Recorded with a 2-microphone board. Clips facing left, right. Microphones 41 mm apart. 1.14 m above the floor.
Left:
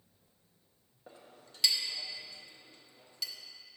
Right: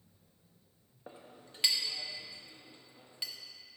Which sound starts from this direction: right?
A clink, at 1.1 s.